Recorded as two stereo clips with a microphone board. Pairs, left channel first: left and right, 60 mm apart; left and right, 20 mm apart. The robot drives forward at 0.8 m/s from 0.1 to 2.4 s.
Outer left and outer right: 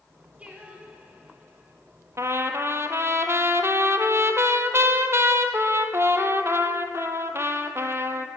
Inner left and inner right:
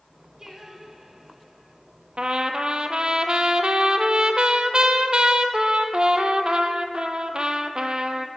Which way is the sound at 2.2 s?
50° right (ahead or behind).